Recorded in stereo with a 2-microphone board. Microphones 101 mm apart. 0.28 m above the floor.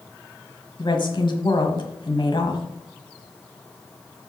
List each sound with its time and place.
0.8 s a woman speaking: 50° left (ahead or behind), 1.5 m